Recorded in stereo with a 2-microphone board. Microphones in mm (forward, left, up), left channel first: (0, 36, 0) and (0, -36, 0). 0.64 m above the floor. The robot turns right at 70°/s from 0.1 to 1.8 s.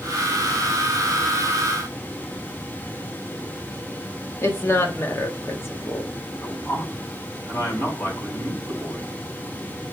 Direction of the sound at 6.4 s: 40° left (ahead or behind).